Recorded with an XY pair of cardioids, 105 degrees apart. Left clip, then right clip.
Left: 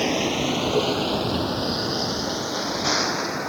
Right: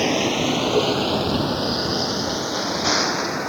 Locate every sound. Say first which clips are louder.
0.0 s a vehicle: right 3 dB; 15° right; by 3.5 s 10° right